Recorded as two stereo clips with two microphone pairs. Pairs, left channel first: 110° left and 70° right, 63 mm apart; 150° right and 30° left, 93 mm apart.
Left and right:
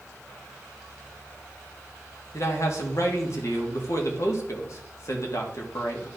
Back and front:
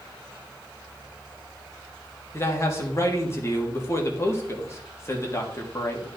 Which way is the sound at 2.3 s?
150° left.